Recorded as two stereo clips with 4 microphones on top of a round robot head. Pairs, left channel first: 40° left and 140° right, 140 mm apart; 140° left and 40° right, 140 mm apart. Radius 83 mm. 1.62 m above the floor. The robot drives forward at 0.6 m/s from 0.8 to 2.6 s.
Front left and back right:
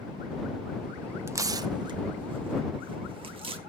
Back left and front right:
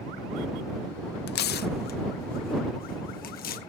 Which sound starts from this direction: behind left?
Tearing paper, at 1.3 s.